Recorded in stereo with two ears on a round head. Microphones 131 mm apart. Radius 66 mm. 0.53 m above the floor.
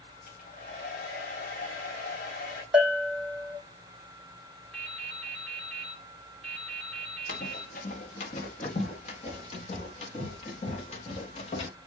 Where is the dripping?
Centre (ahead or behind), 3 m.